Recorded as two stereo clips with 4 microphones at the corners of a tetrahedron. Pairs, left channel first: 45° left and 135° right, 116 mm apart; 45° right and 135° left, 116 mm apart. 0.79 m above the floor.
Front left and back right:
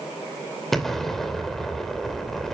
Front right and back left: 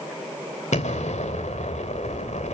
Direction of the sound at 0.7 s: 40° right.